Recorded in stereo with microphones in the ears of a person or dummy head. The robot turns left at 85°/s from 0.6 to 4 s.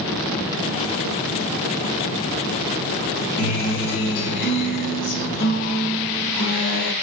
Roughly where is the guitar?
Behind left.